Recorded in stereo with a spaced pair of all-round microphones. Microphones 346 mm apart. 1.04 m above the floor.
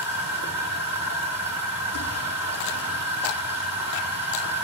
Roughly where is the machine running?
Left.